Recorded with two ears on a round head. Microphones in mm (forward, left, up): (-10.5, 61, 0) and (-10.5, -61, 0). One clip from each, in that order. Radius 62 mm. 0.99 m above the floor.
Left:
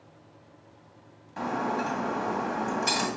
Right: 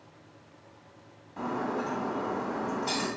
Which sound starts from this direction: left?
Breaking glass, at 1.4 s.